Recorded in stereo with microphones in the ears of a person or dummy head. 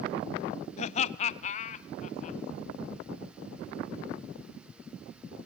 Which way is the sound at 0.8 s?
35° left (ahead or behind).